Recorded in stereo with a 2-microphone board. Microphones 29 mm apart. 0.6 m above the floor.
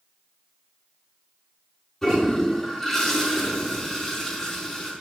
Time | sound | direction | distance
2.0 | a toilet flushing | 10° left (ahead or behind) | 5 m